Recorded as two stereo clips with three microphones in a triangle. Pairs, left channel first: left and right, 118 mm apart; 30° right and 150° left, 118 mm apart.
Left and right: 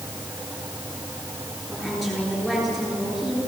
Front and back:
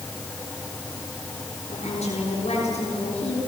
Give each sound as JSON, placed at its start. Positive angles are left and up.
{"t": 1.7, "sound": "a woman speaking", "azimuth_deg": 0, "distance_m": 9.0}